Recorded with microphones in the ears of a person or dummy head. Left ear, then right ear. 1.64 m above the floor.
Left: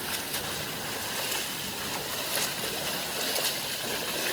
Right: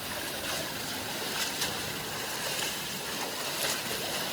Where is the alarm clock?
I don't hear an alarm clock.